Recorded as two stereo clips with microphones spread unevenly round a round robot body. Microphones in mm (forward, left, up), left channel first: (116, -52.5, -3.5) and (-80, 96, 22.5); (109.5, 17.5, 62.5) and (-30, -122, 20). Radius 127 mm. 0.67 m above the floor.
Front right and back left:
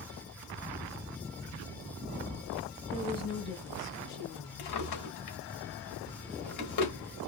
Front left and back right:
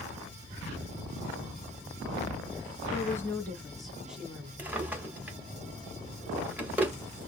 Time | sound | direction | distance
2.9 | a woman speaking | 35° right | 0.9 m
4.6 | a drawer | 55° right | 1.6 m